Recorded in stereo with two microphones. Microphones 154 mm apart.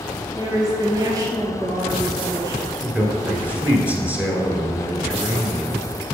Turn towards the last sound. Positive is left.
turn(degrees=-10)  # may be behind; listen again after turning